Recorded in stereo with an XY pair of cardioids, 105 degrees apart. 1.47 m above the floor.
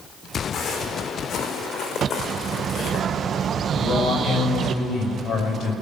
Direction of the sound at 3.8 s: 70° left.